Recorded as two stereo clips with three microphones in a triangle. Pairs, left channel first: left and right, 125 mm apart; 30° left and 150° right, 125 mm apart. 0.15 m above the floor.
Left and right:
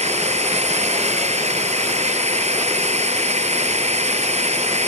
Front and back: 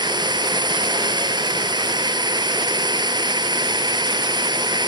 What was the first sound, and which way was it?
A drone, 100° right.